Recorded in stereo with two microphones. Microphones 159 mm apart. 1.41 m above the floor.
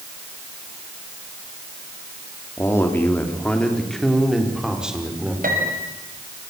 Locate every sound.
2.6 s a man speaking: 20° left (ahead or behind), 4 m; by 5.3 s 10° right (ahead or behind), 5.5 m
5.4 s a piano: 65° right (ahead or behind), 6 m